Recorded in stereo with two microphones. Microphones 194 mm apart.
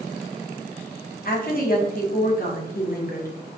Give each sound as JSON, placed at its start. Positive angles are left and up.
{"t": 1.2, "sound": "a woman speaking", "side_deg": 55, "distance_m": 1.2}